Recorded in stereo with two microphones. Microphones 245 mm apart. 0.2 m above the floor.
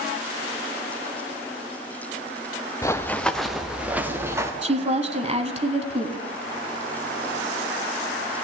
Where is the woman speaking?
25° right (ahead or behind), 1.2 m.